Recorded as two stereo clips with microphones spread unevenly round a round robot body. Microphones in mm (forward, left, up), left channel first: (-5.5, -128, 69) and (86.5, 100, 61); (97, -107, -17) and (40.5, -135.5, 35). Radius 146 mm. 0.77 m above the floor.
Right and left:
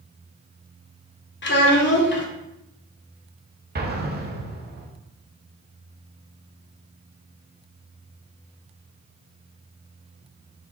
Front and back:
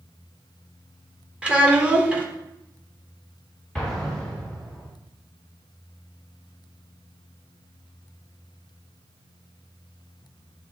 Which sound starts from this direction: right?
A child speaking, at 1.4 s.